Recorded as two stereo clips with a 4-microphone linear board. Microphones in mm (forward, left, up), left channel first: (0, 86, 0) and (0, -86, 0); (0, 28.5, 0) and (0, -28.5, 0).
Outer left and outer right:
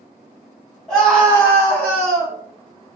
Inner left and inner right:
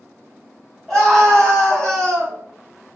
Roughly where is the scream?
Centre.